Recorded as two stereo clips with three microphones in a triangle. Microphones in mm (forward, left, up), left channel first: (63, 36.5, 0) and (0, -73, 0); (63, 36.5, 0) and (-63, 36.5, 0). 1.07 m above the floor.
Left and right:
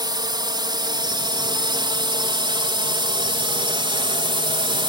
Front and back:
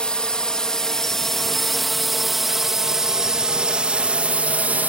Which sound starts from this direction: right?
A drone, at 0.0 s.